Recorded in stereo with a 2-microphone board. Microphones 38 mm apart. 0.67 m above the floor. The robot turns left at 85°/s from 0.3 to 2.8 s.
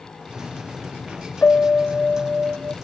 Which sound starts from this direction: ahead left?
A piano, at 1.4 s.